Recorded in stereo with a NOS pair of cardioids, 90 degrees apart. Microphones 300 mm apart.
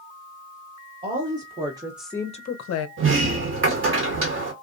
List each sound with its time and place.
1.0 s a woman speaking: 30° right, 1.2 m; by 2.9 s 75° left, 0.6 m
3.0 s a sliding door: 45° right, 1.1 m